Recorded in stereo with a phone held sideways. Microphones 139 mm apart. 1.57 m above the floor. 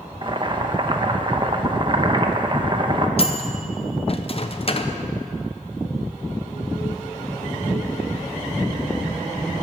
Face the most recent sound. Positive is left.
turn(degrees=45)  # may be behind; listen again after turning